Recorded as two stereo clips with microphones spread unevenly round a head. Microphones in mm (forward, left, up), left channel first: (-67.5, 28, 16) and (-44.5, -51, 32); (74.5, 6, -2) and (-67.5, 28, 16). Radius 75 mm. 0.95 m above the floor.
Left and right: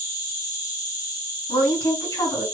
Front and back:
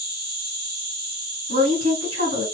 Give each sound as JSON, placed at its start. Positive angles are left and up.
{"t": 0.0, "sound": "an insect", "azimuth_deg": 155, "distance_m": 1.9}
{"t": 1.5, "sound": "a woman speaking", "azimuth_deg": 145, "distance_m": 2.0}